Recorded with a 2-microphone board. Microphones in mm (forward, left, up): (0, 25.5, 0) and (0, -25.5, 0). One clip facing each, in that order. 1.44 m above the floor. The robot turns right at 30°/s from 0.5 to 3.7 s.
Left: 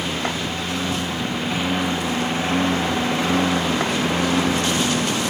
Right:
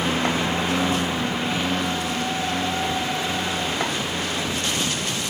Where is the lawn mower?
30° right; by 5.3 s 70° left.